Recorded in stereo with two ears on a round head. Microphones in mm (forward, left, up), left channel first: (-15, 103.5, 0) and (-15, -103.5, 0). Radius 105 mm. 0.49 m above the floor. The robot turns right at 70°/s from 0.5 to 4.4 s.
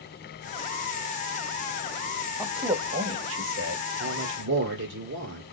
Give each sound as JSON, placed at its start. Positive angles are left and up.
{"t": 2.4, "sound": "a man speaking", "azimuth_deg": -160, "distance_m": 2.5}
{"t": 4.0, "sound": "a man speaking", "side_deg": -50, "distance_m": 1.7}